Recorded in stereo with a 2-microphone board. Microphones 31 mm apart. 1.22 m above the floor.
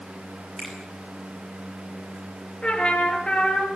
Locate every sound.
0.6 s a finger snap: 20° right (ahead or behind), 8.5 m
2.6 s a trumpet: 35° left (ahead or behind), 5 m